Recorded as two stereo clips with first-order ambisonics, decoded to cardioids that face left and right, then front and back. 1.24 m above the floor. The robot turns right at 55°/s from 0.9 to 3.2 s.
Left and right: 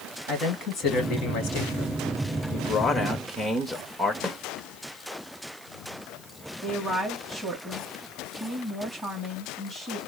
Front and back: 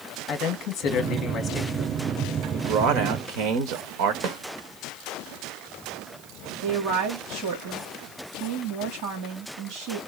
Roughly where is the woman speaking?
Behind.